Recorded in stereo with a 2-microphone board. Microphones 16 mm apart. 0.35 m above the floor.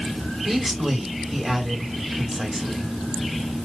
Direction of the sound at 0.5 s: 35° right (ahead or behind).